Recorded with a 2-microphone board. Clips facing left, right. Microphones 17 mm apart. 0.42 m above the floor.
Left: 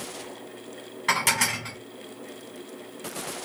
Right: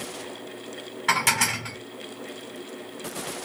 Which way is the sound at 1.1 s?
5° right (ahead or behind).